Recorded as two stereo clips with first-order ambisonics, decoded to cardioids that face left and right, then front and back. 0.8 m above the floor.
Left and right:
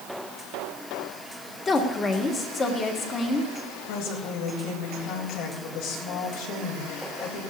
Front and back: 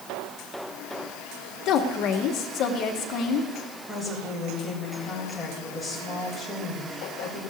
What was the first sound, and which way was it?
A woman speaking, 25° left.